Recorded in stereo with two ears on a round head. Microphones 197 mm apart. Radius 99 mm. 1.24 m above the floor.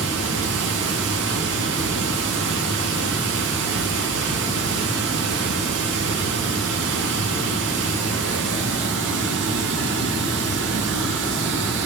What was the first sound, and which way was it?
Running water, 55° right (ahead or behind).